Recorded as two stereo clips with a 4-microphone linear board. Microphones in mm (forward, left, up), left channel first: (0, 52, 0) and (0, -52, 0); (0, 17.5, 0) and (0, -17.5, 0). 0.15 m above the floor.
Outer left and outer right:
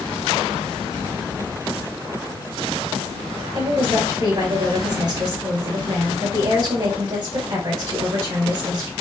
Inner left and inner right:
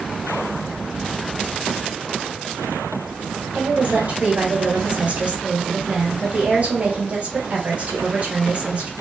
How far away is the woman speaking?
About 2.5 m.